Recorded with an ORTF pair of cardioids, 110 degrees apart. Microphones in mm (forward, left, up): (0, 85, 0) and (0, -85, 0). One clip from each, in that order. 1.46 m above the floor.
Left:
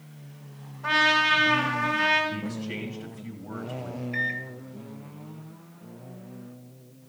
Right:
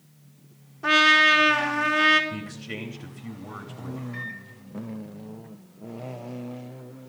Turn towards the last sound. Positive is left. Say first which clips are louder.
# left 10 dB
turn(degrees=40)